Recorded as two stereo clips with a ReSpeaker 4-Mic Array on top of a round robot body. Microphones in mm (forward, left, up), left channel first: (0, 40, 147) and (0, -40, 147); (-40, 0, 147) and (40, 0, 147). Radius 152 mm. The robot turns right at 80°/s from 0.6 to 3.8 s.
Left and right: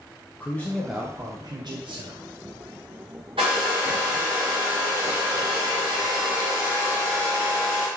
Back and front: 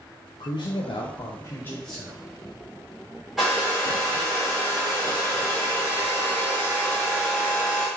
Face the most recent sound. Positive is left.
turn(degrees=-55)